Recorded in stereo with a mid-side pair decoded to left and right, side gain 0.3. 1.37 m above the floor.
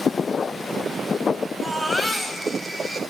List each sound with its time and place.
1.6 s a baby crying: 5° left, 7 m